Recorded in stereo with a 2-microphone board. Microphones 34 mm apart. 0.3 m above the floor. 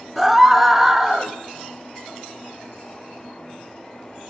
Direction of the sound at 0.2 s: 5° right (ahead or behind).